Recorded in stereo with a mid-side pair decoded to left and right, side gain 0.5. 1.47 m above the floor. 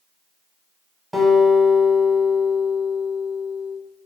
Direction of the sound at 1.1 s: Straight ahead.